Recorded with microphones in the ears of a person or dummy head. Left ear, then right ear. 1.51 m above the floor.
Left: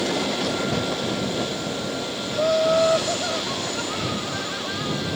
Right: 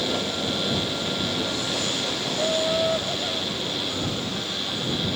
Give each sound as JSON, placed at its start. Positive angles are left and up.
{"t": 2.3, "sound": "laughter", "side_deg": 45}